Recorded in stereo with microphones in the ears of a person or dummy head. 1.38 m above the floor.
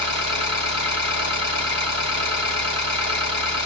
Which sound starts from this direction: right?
An engine running, at 0.0 s.